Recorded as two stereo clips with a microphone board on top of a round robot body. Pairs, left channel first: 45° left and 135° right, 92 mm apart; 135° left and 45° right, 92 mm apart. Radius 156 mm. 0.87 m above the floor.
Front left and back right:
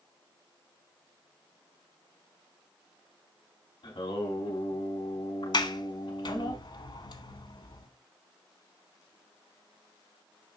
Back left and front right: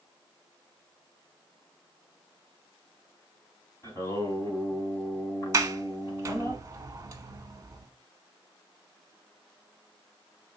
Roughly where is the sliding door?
Ahead.